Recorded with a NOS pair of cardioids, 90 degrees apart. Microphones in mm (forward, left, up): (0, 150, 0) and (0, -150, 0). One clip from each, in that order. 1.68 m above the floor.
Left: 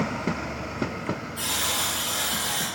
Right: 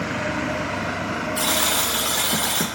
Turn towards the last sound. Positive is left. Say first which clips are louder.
# right 5 dB
turn(degrees=-70)